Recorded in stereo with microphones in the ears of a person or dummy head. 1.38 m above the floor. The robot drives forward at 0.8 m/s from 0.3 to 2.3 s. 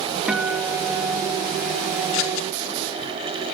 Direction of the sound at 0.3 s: Centre (ahead or behind).